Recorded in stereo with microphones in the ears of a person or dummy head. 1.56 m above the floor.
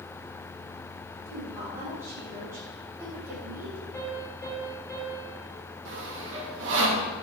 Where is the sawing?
65° right (ahead or behind), 2.5 m.